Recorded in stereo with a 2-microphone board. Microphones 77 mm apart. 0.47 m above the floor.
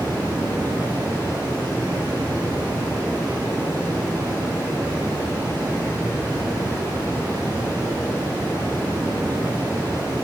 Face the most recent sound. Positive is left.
turn(degrees=-60)  # may be behind; listen again after turning